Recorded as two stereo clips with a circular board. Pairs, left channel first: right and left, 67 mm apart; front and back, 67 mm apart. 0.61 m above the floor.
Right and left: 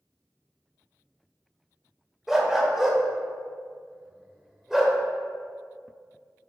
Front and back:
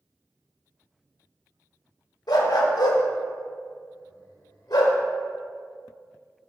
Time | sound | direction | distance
2.3 | a dog barking | 5° left | 0.9 m